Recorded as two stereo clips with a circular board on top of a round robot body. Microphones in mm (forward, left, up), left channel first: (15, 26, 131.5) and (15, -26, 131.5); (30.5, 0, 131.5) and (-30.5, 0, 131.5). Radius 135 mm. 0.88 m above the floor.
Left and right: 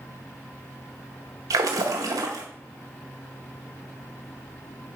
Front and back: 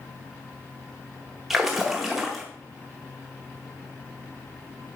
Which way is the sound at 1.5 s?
95° right.